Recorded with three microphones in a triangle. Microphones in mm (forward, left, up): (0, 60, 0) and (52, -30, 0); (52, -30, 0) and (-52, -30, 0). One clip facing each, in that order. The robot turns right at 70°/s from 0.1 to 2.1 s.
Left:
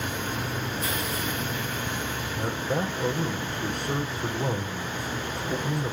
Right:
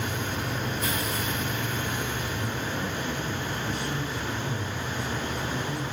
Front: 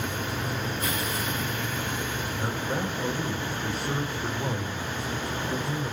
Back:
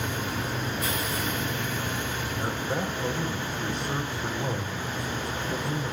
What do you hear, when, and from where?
2.4 s a man speaking: 85° left, 5.5 m